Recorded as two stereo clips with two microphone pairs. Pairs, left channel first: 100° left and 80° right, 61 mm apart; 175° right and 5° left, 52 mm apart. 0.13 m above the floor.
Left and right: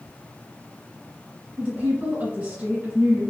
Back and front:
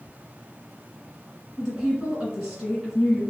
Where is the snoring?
I don't hear snoring.